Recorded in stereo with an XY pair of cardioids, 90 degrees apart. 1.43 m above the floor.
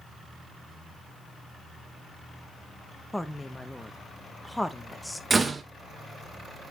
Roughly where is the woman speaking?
Ahead.